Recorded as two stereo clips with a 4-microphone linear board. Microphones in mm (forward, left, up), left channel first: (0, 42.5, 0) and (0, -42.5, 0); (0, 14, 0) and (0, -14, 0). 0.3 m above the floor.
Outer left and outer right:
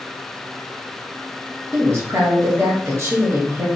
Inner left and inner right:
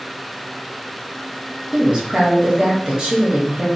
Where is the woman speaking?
35° right (ahead or behind), 1.0 m.